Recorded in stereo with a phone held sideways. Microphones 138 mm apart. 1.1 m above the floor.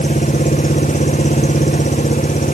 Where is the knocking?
I don't hear knocking.